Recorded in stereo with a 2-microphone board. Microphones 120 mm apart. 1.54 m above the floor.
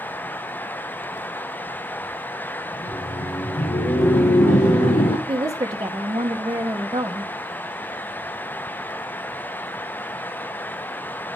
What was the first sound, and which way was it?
Laughter, 80° left.